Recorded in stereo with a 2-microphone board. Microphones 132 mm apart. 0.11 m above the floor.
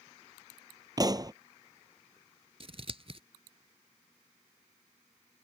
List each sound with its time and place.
1.0 s a pop: 30° right (ahead or behind)
2.6 s scissors: 45° right (ahead or behind)